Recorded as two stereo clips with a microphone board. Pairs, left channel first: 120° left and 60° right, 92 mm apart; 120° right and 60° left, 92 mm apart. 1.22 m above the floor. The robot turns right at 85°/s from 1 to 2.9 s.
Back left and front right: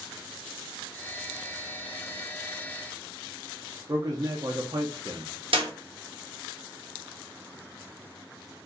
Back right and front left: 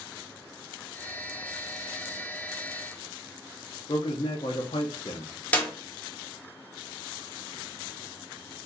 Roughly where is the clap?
Ahead right.